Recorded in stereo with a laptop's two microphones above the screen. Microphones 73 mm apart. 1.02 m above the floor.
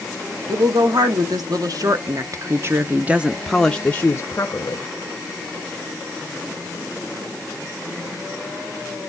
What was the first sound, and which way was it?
A woman speaking, 70° right (ahead or behind).